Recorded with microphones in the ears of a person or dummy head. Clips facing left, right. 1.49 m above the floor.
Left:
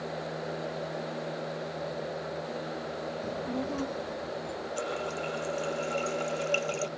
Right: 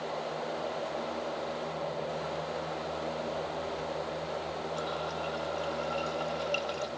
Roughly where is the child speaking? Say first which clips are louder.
Left 2 dB; left.